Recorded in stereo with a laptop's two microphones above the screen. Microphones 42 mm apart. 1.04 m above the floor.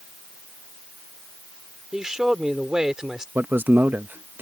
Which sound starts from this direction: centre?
A man speaking, at 1.9 s.